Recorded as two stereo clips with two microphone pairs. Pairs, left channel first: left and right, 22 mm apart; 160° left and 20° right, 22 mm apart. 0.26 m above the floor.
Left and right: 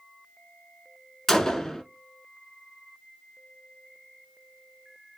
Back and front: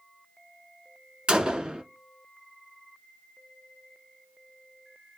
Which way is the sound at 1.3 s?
20° left.